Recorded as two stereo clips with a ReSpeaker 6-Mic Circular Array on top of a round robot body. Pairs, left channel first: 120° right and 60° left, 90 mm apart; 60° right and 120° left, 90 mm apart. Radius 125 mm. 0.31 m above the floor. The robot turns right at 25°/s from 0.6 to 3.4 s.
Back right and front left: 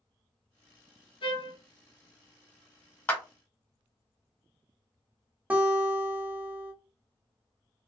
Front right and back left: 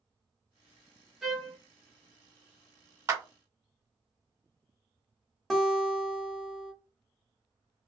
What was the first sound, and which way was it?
A trumpet, 150° right.